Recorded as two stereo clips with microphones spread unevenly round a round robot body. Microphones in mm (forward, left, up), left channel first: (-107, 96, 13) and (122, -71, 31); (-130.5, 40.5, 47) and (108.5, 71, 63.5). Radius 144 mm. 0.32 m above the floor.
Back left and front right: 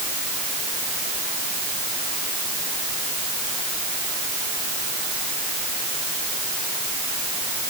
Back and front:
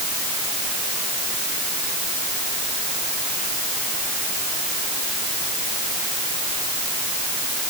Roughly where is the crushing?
I don't hear crushing.